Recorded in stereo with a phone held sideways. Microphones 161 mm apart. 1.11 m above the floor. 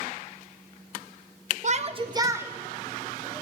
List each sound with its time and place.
1.6 s a shout: 50° right (ahead or behind), 0.6 m; by 3.4 s 10° left (ahead or behind), 1.2 m